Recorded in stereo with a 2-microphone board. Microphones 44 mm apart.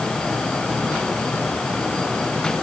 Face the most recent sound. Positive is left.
No sound to turn to.